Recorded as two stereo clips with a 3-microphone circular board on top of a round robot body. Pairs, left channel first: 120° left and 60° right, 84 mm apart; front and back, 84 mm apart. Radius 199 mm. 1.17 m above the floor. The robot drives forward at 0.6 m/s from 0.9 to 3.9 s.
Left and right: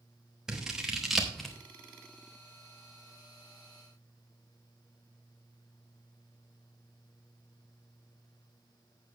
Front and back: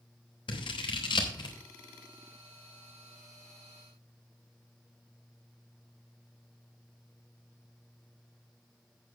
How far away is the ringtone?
I don't hear a ringtone.